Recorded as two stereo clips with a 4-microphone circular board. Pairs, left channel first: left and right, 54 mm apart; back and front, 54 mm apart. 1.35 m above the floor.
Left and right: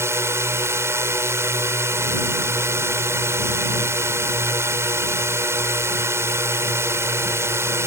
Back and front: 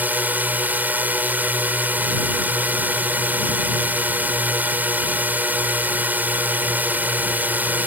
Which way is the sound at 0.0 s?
55° right.